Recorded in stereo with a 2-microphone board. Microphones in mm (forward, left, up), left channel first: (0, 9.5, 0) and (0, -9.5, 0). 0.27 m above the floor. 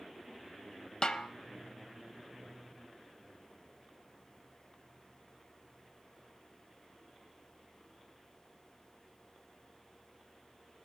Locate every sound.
1.0 s a snare drum: 35° left (ahead or behind), 0.7 m